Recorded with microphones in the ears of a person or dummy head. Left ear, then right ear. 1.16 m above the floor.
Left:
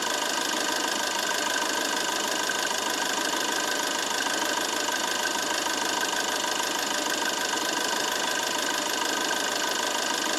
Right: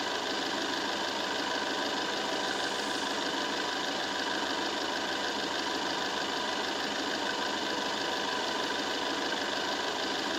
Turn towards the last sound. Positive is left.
turn(degrees=55)  # may be behind; listen again after turning